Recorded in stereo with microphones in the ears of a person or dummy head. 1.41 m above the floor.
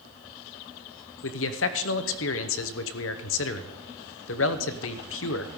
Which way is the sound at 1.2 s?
70° left (ahead or behind).